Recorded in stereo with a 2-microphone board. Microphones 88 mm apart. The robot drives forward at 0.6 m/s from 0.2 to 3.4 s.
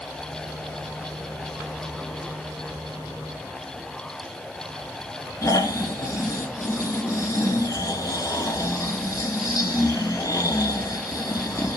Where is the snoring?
35° left (ahead or behind), 2.5 m.